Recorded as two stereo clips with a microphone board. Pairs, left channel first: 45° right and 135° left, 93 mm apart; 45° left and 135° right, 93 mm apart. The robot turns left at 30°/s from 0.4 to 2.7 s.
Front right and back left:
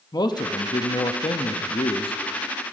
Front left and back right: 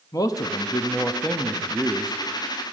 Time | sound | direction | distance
0.1 | a man speaking | 5° right | 0.7 m